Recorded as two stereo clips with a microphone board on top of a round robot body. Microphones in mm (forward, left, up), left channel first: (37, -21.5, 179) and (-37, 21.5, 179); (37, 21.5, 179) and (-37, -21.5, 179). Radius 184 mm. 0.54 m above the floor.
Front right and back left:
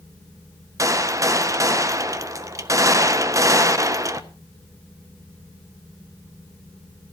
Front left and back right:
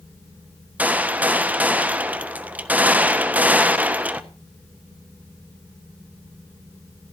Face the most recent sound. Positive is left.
turn(degrees=150)